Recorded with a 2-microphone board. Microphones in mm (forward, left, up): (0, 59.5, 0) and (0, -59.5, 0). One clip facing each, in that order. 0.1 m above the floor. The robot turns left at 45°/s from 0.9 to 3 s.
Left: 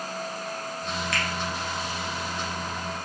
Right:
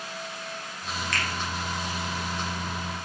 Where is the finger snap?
Centre (ahead or behind), 2 m; by 1.3 s 5° right (ahead or behind), 2 m.